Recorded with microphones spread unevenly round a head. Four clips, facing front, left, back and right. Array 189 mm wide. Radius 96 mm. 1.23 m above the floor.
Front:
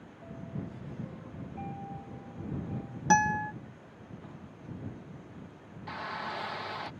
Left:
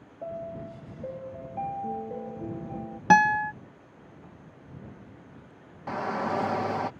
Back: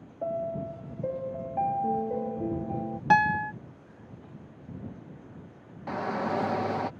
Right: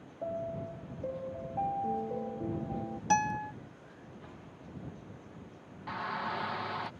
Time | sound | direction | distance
0.2 | a piano | straight behind | ?
3.1 | a guitar | 75° left | ?
5.9 | a shout | 135° left | ?